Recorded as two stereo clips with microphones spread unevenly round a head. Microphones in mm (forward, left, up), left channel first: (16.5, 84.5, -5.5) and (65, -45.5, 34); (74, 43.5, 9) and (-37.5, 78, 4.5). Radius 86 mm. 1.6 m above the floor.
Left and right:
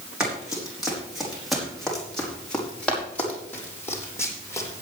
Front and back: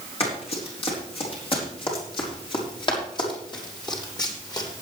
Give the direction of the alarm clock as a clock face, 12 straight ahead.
I don't hear an alarm clock.